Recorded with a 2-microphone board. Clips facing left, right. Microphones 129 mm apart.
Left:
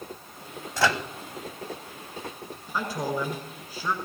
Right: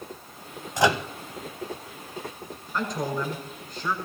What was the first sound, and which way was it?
A microwave, 20° right (ahead or behind).